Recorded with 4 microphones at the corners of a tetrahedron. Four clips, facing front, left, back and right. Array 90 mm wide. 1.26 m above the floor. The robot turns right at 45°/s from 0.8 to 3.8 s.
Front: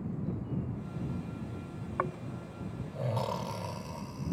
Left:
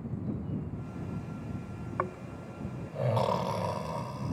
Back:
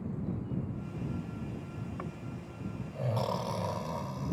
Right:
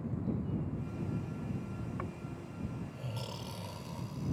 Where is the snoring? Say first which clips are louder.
Left 7 dB, front 6 dB; 45° left; by 4.3 s 125° left.